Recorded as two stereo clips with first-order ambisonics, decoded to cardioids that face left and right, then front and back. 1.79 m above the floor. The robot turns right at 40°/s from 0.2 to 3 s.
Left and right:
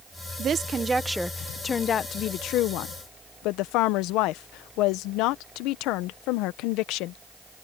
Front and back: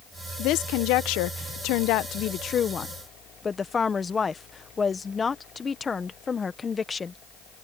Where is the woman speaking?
30° right; by 7.2 s 75° left.